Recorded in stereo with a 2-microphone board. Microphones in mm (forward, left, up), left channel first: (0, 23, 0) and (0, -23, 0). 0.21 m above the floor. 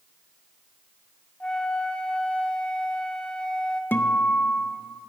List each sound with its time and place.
1.4 s a flute: 20° left (ahead or behind), 0.5 m
3.9 s a guitar: 50° left (ahead or behind), 0.6 m